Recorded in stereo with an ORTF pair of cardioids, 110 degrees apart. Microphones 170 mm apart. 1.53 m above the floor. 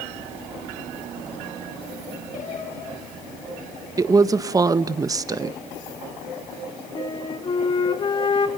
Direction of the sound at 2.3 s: 50° left.